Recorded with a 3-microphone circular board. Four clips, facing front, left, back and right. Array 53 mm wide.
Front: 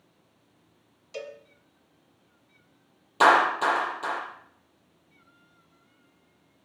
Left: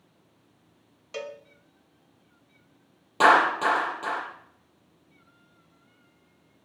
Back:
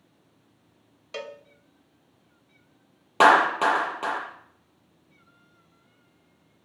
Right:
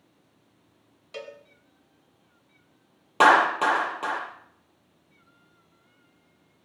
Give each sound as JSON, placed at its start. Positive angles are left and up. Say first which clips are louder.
{"t": 1.1, "sound": "a cowbell", "louder": "left 3 dB, back 2 dB", "azimuth_deg": 165, "distance_m": 1.2}
{"t": 3.2, "sound": "a clap", "louder": "right 1 dB, back 2 dB", "azimuth_deg": -150, "distance_m": 7.0}